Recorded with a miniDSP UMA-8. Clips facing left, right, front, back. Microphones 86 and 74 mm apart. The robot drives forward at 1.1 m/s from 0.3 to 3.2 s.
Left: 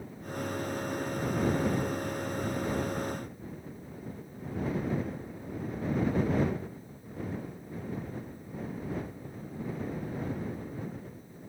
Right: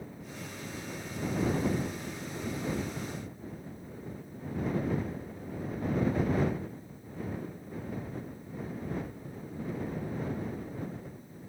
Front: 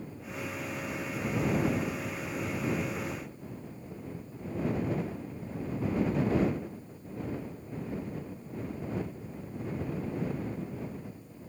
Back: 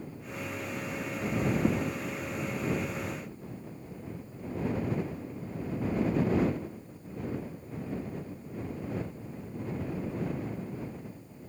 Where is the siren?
No siren in this recording.